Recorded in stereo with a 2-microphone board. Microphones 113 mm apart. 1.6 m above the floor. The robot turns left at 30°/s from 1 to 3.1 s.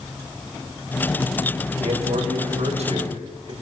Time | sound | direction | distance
1.8 | a man speaking | 80° right | 8.5 m